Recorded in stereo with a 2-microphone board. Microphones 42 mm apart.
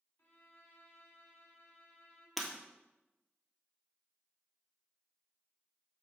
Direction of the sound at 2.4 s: 5° left (ahead or behind).